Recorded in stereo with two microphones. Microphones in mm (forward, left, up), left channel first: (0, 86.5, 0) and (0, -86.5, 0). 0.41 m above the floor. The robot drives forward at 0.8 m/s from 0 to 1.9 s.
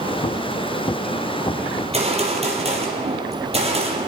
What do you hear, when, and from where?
1.8 s a gunshot: 35° right (ahead or behind), 4.5 m